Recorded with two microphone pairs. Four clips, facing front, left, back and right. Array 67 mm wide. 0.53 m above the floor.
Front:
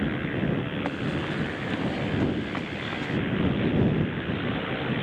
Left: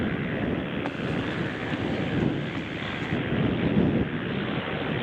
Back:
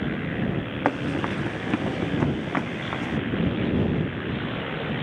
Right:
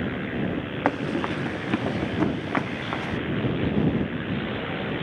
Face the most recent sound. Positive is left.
turn(degrees=-115)